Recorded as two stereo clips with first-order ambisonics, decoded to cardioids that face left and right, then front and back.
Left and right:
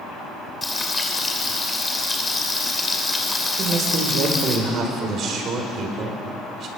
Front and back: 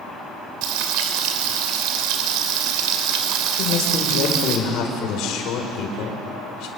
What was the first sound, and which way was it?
Frying, 170° left.